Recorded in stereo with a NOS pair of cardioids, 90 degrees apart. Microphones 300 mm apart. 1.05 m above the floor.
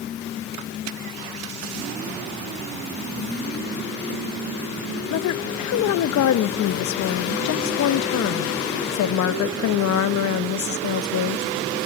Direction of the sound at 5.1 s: 65° left.